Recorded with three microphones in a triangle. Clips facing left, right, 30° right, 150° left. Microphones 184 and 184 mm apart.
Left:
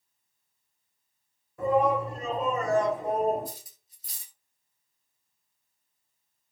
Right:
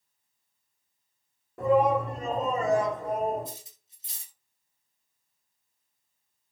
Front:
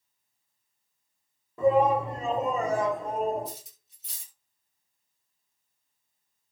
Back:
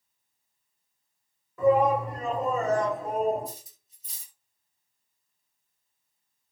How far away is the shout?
About 1.3 m.